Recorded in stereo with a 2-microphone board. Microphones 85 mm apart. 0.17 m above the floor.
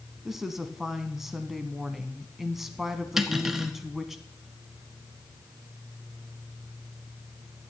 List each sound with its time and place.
0.2 s a woman speaking: 5° right (ahead or behind), 1.1 m
3.2 s cutlery clinking: 5° right (ahead or behind), 1.2 m